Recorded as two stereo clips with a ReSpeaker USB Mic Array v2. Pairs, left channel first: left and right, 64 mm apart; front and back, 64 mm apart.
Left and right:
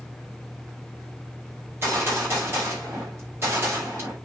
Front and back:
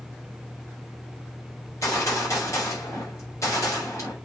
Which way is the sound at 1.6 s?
40° right.